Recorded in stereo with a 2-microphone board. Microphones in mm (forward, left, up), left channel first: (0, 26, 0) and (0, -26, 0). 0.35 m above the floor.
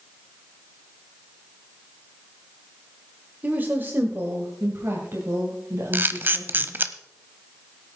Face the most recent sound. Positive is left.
turn(degrees=-40)  # may be behind; listen again after turning